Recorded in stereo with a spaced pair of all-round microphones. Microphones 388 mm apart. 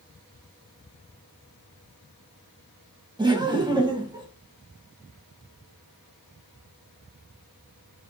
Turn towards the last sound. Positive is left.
turn(degrees=-10)  # may be behind; listen again after turning